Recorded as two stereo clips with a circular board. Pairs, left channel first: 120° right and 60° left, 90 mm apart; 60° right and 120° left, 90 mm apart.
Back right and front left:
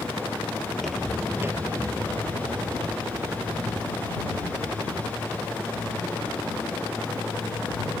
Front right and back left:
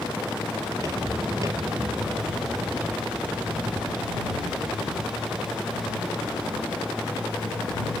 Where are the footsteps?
160° left; by 5.2 s 35° left.